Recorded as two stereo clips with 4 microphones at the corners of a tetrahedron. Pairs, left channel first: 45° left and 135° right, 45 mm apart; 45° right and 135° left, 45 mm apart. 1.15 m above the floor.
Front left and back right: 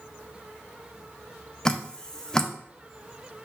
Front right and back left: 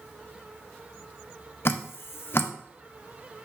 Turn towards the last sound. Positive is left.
turn(degrees=-25)